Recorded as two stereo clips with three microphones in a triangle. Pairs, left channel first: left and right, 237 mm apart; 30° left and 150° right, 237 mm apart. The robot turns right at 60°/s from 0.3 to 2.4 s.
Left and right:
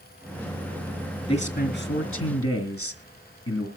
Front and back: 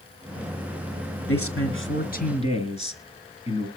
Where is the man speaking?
20° left, 3 m; by 3.7 s 90° left, 3 m.